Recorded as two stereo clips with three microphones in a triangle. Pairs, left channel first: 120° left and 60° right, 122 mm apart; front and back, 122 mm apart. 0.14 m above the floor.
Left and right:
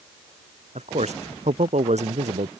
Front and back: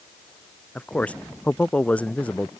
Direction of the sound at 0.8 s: 80° right.